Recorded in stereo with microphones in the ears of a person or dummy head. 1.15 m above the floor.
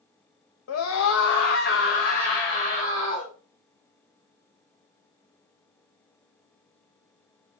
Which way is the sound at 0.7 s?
85° left.